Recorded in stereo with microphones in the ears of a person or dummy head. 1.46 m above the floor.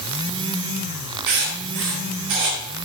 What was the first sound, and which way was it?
Writing, 55° right (ahead or behind).